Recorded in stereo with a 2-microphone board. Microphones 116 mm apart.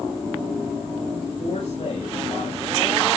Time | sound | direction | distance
1.4 | a man speaking | 65° left (ahead or behind) | 3.5 m